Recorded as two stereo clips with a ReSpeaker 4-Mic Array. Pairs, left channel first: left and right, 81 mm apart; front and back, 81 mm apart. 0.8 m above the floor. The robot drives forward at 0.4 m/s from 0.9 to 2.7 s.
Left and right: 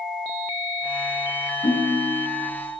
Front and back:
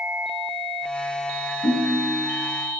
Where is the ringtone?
170° right, 3 m.